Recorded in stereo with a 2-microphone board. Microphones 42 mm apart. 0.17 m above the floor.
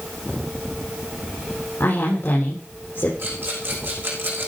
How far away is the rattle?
About 5 m.